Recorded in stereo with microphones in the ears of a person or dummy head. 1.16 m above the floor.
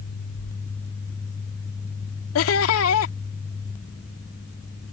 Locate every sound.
2.4 s laughter: 85° left